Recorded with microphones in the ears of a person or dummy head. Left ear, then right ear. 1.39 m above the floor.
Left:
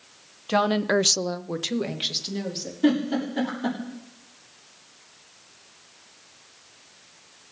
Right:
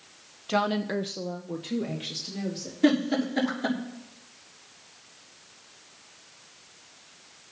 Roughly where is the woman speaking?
Centre.